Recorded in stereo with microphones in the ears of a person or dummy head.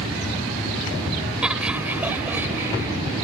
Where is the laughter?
10° right (ahead or behind); by 2.9 s 15° right (ahead or behind).